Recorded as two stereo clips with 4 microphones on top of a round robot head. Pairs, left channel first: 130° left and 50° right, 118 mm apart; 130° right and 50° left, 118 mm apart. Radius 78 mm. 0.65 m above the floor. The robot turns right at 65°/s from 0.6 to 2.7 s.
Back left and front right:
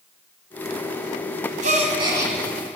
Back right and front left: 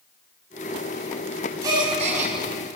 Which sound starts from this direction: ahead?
A gasp, at 1.6 s.